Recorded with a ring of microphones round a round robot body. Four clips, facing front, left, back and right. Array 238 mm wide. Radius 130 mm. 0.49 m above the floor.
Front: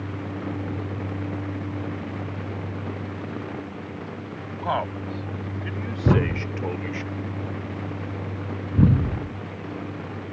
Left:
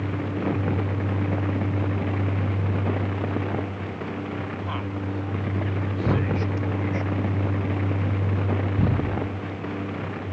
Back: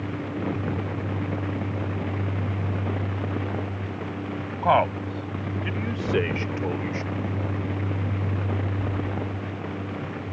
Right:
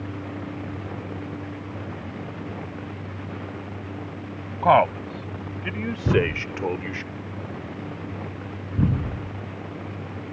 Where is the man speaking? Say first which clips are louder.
Right 13 dB, back 6 dB; 105° right; by 7.0 s 75° right.